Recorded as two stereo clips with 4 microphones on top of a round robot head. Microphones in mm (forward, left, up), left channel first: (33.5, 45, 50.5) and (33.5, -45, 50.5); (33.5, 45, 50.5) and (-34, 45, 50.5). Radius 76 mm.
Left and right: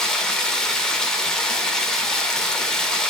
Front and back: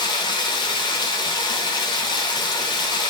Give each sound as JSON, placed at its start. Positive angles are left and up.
{"t": 0.0, "sound": "running water", "azimuth_deg": 5, "distance_m": 1.0}